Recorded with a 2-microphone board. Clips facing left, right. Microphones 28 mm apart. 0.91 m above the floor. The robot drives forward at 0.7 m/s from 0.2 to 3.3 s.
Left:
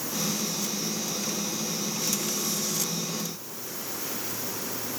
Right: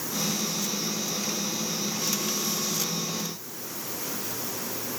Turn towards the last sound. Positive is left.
No sound to turn to.